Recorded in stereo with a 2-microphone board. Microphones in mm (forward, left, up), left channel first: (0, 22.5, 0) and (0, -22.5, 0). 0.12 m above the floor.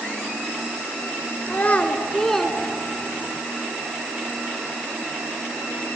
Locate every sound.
1.5 s a child speaking: 40° left (ahead or behind), 1.2 m; by 3.4 s 35° right (ahead or behind), 1.1 m